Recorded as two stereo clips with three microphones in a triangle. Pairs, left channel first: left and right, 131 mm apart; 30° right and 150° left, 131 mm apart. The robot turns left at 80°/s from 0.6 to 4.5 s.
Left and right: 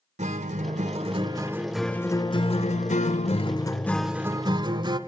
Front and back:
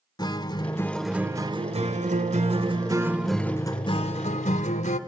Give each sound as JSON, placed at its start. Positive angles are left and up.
{"t": 0.2, "sound": "a guitar", "azimuth_deg": -85, "distance_m": 0.7}